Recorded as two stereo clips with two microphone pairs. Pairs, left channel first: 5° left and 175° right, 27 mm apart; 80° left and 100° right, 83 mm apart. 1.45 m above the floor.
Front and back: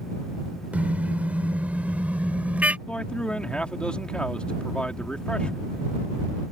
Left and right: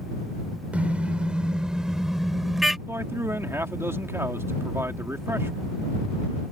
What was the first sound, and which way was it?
A car horn, 175° right.